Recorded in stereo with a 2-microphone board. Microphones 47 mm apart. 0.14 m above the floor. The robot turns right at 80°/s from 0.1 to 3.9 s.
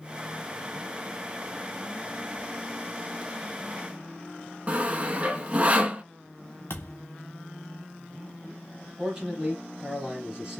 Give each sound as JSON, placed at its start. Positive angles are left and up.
{"t": 4.7, "sound": "sawing", "side_deg": -35, "distance_m": 0.6}
{"t": 6.7, "sound": "a thud", "side_deg": 65, "distance_m": 1.4}
{"t": 9.0, "sound": "a man speaking", "side_deg": -15, "distance_m": 2.5}